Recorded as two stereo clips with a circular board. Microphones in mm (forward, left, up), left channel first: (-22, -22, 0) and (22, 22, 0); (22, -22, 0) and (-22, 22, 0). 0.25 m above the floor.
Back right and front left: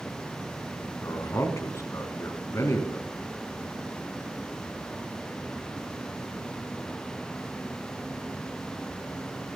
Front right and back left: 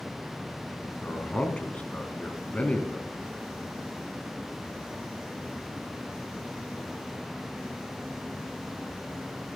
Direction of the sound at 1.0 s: 110° right.